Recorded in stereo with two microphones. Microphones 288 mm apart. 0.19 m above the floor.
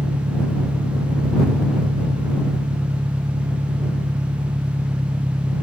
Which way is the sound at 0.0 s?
15° right (ahead or behind).